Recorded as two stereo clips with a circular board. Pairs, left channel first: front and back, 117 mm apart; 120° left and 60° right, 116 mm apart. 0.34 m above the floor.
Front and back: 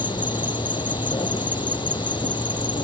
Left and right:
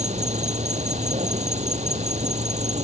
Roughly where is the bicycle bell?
I don't hear a bicycle bell.